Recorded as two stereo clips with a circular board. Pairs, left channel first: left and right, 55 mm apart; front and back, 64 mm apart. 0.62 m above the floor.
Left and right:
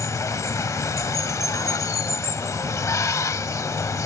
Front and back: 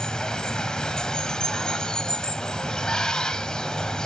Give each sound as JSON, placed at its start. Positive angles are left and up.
{"t": 0.0, "sound": "running water", "azimuth_deg": 75, "distance_m": 0.8}